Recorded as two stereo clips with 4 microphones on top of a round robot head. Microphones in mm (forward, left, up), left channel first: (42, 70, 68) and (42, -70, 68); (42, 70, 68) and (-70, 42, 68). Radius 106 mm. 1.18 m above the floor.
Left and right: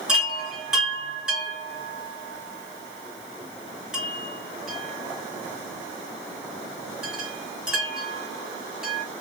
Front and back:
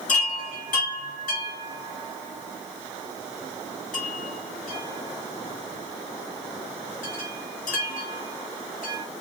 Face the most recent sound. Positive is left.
turn(degrees=-5)